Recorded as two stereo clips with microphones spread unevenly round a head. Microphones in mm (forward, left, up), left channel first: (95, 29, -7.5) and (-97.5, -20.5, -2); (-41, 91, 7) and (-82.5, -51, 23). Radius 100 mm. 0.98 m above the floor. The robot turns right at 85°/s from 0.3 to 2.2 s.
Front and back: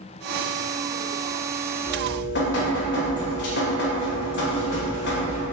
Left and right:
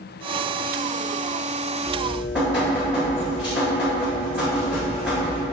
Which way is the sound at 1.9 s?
50° right.